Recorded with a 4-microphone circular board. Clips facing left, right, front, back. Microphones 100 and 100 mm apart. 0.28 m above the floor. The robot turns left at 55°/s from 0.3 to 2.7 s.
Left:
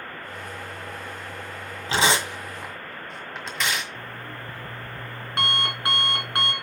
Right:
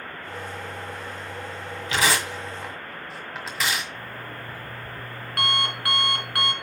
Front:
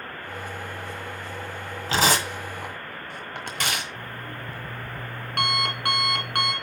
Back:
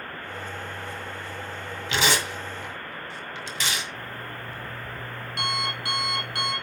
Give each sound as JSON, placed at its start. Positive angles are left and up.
{"t": 1.9, "sound": "tearing paper", "azimuth_deg": 40, "distance_m": 1.7}
{"t": 4.0, "sound": "an alarm clock", "azimuth_deg": 25, "distance_m": 2.0}